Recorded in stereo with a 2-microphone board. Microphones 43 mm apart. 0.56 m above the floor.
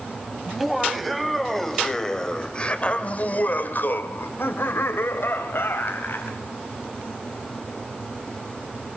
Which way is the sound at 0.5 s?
5° right (ahead or behind).